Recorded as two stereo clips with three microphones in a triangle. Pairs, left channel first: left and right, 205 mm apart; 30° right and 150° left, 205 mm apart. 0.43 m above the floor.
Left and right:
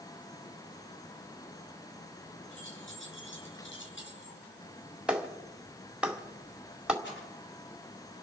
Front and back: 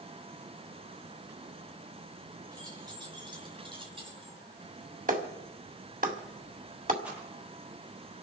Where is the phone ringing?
I don't hear a phone ringing.